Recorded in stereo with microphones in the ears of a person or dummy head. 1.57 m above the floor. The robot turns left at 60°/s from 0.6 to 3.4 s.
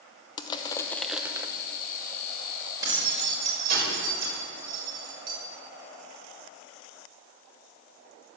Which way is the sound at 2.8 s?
20° right (ahead or behind).